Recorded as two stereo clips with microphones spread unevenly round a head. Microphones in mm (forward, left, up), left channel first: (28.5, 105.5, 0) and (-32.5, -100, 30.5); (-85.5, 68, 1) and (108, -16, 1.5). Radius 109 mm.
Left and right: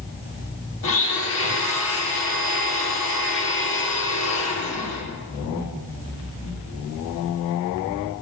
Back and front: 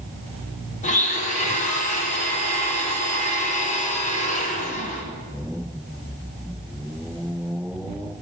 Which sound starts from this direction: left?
A blender, at 0.8 s.